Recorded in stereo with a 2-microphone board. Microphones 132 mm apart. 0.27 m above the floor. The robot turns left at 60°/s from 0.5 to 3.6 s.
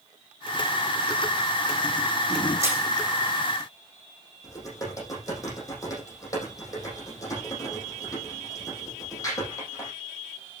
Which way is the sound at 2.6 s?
25° right (ahead or behind).